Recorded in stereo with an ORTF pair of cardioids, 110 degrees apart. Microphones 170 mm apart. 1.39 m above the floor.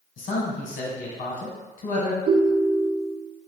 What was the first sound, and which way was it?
A man speaking, 55° left.